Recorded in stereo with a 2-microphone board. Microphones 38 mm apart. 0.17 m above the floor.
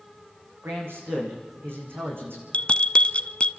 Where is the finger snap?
I don't hear a finger snap.